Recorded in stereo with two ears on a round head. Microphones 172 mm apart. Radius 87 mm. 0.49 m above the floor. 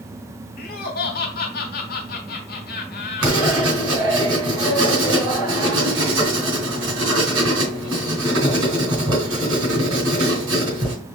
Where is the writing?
80° right, 3 m.